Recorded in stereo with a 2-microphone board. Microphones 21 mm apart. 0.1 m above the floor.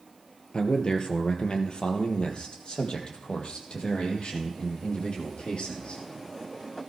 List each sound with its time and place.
0.5 s a man speaking: 45° left (ahead or behind), 2.5 m; by 6.0 s 55° left (ahead or behind), 5.5 m